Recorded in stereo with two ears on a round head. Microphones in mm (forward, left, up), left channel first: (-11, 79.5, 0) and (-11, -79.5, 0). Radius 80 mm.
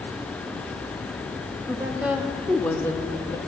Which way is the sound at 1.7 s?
10° right (ahead or behind).